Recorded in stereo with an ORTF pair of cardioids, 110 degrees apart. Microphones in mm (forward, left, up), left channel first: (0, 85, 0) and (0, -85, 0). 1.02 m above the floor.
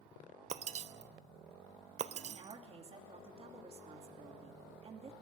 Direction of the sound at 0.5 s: 40° right.